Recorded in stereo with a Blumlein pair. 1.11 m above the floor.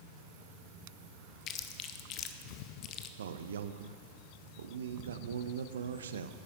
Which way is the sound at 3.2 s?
65° right.